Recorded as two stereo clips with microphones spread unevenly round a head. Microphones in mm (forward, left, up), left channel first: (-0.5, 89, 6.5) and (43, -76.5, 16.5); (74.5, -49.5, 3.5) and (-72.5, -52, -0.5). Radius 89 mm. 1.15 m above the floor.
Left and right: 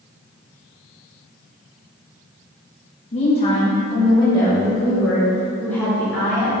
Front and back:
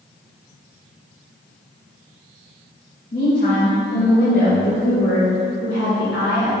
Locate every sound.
3.1 s a woman speaking: 55° left, 2.5 m; by 6.5 s straight ahead, 5 m